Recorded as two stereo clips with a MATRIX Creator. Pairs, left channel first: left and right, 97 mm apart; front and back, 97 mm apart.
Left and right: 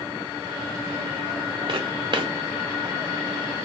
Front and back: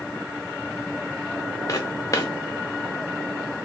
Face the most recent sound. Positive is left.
turn(degrees=-55)